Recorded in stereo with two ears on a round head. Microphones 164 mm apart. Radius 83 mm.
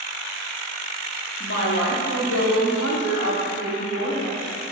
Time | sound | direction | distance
1.4 | a woman speaking | 70° left (ahead or behind) | 2.5 m